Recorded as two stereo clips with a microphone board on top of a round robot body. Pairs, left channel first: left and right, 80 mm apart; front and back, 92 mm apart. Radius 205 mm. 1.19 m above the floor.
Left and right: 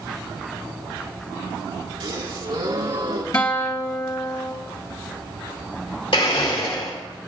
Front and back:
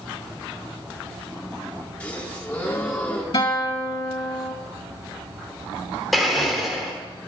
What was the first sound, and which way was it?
A gasp, 75° right.